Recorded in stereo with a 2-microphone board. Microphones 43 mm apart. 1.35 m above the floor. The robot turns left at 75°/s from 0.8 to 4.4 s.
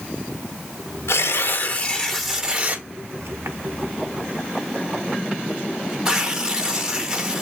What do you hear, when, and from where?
1.1 s tearing paper: 80° left, 0.9 m; by 7.4 s 20° right (ahead or behind), 0.9 m